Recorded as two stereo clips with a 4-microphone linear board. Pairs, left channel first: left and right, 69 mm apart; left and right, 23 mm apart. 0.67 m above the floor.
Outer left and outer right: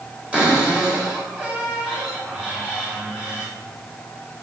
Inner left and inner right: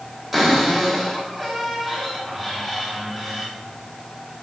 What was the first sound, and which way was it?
A cupboard door, 15° right (ahead or behind).